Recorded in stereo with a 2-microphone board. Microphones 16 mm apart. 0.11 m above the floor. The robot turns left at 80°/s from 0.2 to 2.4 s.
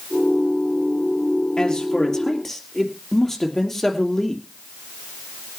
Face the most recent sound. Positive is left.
turn(degrees=20)